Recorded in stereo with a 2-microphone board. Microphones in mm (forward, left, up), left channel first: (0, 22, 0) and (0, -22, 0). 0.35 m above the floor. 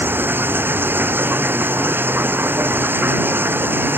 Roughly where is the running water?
Right.